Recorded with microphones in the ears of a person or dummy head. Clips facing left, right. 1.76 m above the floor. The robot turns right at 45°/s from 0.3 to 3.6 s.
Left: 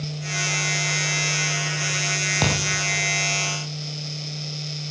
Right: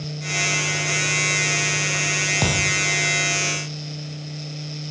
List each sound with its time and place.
2.4 s a thud: 5° right (ahead or behind), 4 m; by 2.7 s 5° left (ahead or behind), 4 m